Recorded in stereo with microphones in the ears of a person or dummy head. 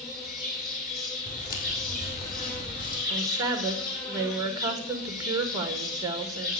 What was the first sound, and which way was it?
An insect, 45° left (ahead or behind).